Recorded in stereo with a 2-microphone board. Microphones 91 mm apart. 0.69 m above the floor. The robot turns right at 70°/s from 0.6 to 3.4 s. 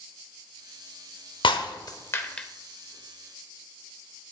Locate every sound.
1.4 s breaking glass: 75° left (ahead or behind), 0.8 m; by 2.5 s 10° left (ahead or behind), 0.8 m